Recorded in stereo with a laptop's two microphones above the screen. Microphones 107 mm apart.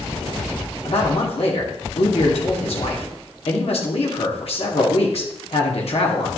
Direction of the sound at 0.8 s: 65° left (ahead or behind).